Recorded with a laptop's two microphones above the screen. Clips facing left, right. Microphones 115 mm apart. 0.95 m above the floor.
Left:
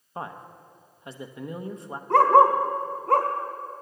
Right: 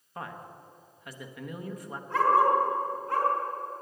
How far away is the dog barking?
About 1.5 m.